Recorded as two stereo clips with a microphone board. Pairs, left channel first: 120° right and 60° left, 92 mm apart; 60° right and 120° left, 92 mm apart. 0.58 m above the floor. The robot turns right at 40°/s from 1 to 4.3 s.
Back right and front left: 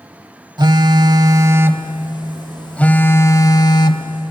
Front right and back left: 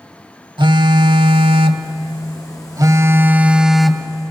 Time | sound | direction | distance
0.6 | a phone buzzing | 95° left | 0.7 m